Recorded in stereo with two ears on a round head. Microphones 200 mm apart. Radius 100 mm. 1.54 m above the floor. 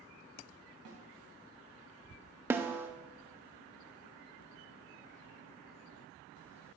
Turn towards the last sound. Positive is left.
turn(degrees=-10)  # may be behind; listen again after turning